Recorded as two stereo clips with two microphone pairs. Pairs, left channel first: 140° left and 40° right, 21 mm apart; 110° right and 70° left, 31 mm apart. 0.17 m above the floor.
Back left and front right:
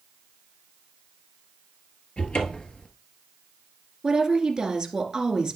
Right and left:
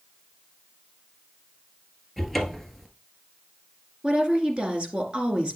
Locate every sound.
2.2 s a cupboard door: 165° left, 1.4 m
4.0 s a woman speaking: 20° left, 2 m